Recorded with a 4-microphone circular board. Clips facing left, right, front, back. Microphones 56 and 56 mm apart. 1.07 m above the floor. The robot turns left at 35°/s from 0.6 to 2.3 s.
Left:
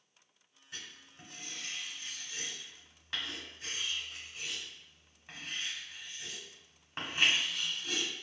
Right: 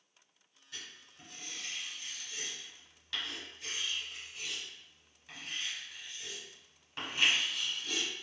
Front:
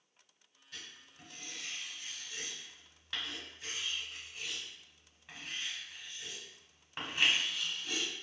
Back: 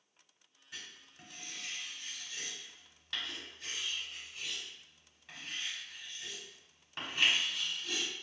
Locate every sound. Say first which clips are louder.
0.7 s writing: left 1 dB, back 1 dB; 120° left, 1.0 m; by 8.1 s 65° left, 1.0 m